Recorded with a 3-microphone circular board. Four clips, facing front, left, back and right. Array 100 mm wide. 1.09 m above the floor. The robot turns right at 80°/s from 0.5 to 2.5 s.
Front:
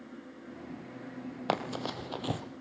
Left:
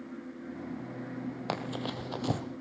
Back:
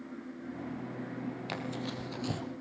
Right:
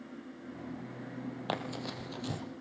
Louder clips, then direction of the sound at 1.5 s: Left 2 dB, front 4 dB; 5° left.